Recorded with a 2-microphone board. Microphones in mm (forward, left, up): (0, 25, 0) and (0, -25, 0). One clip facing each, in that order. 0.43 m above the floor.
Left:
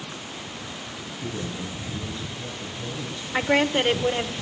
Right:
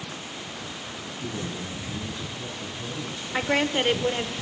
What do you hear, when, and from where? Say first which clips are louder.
1.1 s a man speaking: left 1 dB; 25° right (ahead or behind), 5.5 m
3.3 s a woman speaking: left 3 dB; 5° left (ahead or behind), 1.1 m